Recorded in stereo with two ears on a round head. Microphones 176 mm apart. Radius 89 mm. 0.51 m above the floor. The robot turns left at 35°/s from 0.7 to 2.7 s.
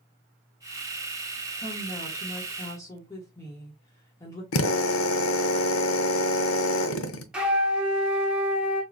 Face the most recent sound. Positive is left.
turn(degrees=-5)  # may be behind; listen again after turning